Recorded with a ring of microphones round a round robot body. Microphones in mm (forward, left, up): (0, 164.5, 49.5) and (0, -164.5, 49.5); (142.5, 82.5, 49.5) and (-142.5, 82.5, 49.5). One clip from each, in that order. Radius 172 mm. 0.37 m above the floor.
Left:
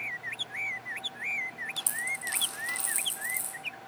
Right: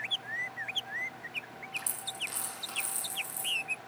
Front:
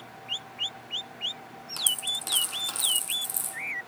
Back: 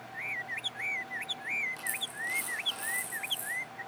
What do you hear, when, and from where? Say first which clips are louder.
1.8 s a dropped coin: left 2 dB, front 7 dB; 15° left, 5 m